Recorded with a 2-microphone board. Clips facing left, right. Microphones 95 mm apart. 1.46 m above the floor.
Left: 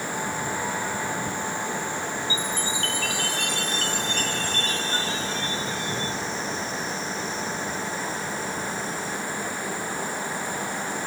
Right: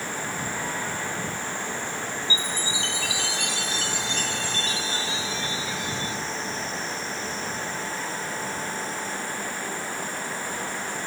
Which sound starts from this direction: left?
A chime, at 2.3 s.